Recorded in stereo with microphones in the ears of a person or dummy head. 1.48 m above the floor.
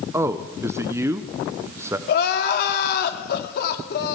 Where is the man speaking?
15° right (ahead or behind), 1.0 m.